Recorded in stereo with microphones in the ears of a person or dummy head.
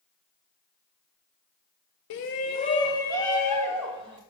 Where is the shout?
60° left (ahead or behind), 0.6 m; by 4.2 s 5° left (ahead or behind), 1.7 m.